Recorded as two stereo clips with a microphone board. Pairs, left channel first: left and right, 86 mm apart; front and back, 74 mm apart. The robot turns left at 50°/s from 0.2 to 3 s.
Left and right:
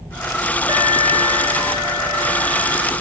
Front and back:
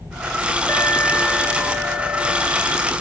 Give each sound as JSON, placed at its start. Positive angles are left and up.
{"t": 0.7, "sound": "an alarm", "azimuth_deg": -60, "distance_m": 3.5}